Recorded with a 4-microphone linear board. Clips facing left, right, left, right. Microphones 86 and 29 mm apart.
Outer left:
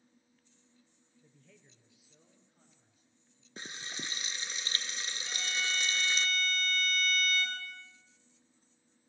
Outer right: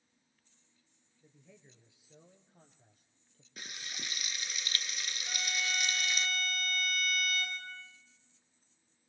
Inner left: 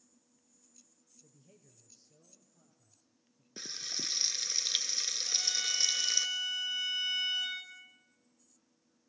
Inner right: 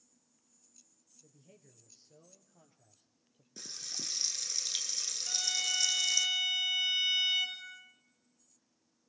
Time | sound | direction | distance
1.2 | a man speaking | 5° right (ahead or behind) | 2.5 m
3.6 | frying | 30° left (ahead or behind) | 1.5 m
5.3 | a violin | 10° right (ahead or behind) | 7.5 m